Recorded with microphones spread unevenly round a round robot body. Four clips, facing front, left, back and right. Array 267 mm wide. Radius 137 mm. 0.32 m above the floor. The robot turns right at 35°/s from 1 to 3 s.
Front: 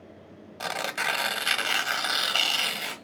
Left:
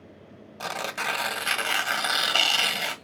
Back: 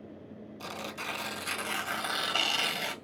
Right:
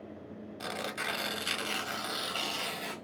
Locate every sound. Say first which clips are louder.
0.6 s tearing paper: left 6 dB, front 9 dB; 25° left, 2.5 m; by 3.0 s 95° left, 2.5 m